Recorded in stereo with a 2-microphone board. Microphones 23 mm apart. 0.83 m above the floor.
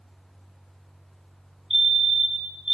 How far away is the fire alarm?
About 1.4 m.